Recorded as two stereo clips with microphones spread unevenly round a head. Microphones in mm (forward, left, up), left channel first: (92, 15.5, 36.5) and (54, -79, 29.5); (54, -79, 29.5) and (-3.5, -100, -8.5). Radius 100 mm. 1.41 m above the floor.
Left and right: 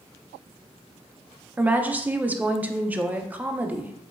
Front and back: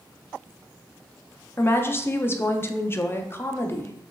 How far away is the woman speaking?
About 0.6 m.